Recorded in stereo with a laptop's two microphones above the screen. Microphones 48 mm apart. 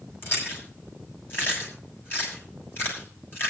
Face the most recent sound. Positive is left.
turn(degrees=50)  # may be behind; listen again after turning